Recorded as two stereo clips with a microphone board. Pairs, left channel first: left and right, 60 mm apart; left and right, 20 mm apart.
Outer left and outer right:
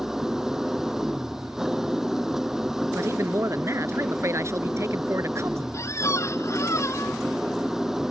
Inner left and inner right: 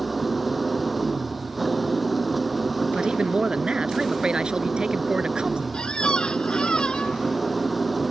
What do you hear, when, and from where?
0.0 s an engine running: 5° right (ahead or behind)
3.0 s a man speaking: 55° right (ahead or behind)
5.7 s a squeak: 55° left (ahead or behind)